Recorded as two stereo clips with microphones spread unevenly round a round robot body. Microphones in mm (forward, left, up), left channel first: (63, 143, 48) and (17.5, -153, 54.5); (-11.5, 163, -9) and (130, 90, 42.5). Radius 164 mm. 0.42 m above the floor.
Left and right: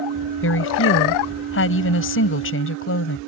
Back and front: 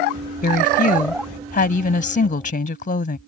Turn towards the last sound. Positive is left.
turn(degrees=130)